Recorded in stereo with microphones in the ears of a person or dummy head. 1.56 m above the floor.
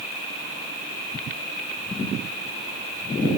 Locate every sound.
Only background noise.